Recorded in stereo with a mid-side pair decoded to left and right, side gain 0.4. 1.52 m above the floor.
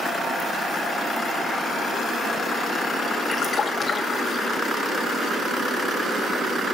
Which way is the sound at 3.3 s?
40° left.